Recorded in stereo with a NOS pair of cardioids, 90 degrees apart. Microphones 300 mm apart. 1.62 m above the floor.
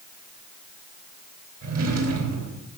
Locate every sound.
1.6 s a drawer: 65° right, 4 m